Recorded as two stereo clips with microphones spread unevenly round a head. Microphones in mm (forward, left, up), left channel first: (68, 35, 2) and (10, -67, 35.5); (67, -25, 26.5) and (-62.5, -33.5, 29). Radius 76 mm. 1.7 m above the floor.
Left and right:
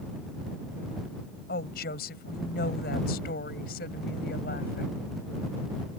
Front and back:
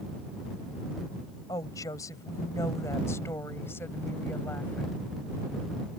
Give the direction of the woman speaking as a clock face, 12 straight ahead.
10 o'clock.